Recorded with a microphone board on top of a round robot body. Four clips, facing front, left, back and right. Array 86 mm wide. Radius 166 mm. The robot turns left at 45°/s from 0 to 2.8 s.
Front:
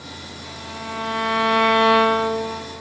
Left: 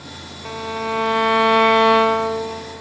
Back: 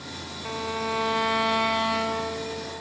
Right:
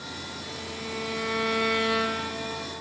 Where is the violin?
115° left, 0.6 m; by 2.6 s 15° left, 0.6 m.